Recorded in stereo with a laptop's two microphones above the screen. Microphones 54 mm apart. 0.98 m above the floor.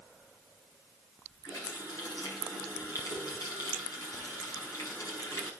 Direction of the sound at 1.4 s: 90° left.